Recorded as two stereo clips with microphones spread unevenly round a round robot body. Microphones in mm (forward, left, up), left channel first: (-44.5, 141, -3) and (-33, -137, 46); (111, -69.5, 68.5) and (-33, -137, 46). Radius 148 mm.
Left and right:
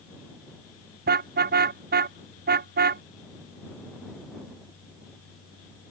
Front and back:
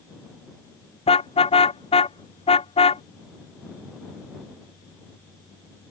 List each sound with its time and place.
1.1 s a car horn: 25° right